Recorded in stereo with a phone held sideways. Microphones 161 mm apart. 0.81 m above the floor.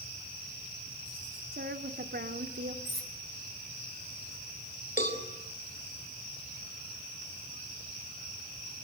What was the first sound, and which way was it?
A woman speaking, 75° right (ahead or behind).